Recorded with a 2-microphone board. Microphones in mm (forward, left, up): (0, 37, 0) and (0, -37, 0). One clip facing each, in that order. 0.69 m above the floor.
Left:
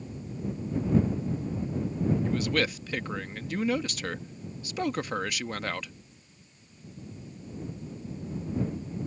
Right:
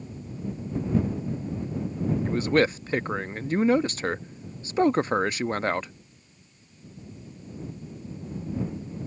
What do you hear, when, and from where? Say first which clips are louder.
2.2 s a man speaking: right 5 dB; 35° right (ahead or behind)